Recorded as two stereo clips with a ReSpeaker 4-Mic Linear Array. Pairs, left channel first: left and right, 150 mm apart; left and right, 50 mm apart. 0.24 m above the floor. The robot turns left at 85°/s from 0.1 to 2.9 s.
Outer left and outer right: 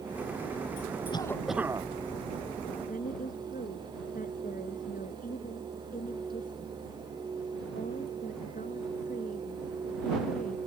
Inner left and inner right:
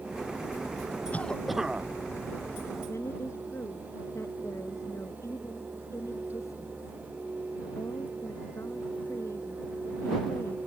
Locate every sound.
1.1 s a cough: 30° left; by 1.9 s 35° right
2.9 s a woman speaking: 70° left (ahead or behind)